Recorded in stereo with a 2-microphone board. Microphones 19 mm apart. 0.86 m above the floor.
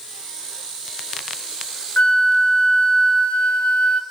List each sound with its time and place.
2.0 s a flute: 60° left (ahead or behind), 0.8 m